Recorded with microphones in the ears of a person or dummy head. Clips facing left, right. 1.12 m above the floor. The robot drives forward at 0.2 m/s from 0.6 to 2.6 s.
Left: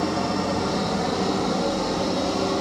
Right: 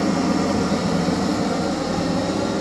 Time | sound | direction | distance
0.0 | an engine running | 40° right (ahead or behind) | 0.8 m